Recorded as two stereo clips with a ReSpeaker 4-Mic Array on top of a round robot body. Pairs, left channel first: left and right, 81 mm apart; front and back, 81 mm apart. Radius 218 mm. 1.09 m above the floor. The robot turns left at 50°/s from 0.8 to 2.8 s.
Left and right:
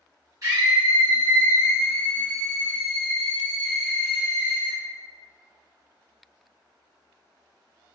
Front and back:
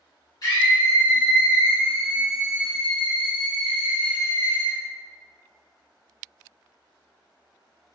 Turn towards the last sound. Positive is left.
turn(degrees=-140)